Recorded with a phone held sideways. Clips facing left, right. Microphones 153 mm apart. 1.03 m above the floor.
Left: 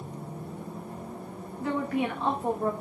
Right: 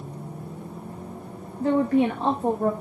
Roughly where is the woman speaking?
Right.